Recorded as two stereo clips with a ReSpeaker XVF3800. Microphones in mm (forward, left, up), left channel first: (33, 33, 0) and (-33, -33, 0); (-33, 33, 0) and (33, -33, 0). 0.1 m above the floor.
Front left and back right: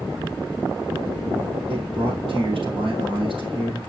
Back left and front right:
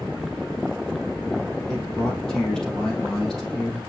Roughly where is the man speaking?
Behind right.